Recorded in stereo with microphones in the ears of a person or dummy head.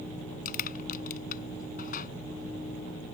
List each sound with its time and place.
0.5 s crushing: 45° left (ahead or behind)